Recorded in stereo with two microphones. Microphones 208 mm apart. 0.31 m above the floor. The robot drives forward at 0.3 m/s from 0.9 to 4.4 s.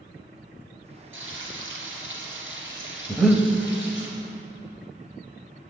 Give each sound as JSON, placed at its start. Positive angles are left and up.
{"t": 1.1, "sound": "frying", "side_deg": -85, "distance_m": 1.9}
{"t": 3.1, "sound": "breathing", "side_deg": 0, "distance_m": 0.7}